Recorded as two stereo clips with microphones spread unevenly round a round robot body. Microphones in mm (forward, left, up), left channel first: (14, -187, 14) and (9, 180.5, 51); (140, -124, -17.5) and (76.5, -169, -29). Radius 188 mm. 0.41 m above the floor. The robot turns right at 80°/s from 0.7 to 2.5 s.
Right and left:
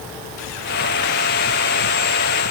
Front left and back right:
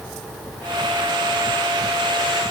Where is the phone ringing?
I don't hear a phone ringing.